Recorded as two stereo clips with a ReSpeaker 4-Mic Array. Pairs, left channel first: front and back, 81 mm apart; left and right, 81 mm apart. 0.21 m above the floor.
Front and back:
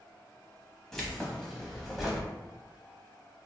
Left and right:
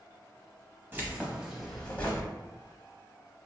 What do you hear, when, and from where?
0.9 s keys jangling: 80° right, 0.8 m; by 2.3 s 90° left, 0.8 m